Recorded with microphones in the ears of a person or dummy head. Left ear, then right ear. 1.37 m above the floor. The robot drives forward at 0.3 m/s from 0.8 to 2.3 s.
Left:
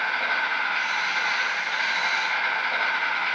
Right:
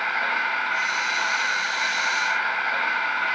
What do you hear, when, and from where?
0.0 s an insect: 35° left (ahead or behind), 1.5 m; by 3.4 s 45° left (ahead or behind), 1.1 m